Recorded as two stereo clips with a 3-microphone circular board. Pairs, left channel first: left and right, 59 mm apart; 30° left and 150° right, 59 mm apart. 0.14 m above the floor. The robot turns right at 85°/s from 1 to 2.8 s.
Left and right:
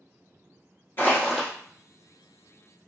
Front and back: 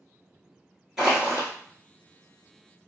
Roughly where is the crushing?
Behind left.